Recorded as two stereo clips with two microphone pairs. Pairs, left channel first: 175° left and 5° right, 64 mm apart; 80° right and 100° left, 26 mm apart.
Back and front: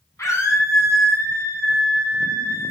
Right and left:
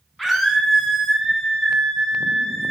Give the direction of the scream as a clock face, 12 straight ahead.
6 o'clock.